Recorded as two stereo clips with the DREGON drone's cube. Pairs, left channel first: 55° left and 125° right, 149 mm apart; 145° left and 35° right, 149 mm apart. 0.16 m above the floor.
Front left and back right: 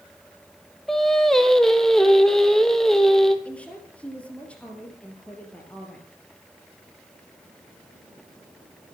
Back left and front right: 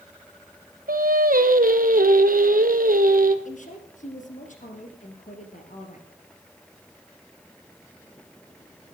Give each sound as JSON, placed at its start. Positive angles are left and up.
{"t": 0.9, "sound": "singing", "azimuth_deg": -30, "distance_m": 0.9}
{"t": 3.5, "sound": "a woman speaking", "azimuth_deg": 135, "distance_m": 2.5}